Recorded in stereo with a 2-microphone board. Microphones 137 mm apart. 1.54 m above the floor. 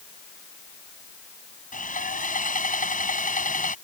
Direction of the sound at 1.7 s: 85° left.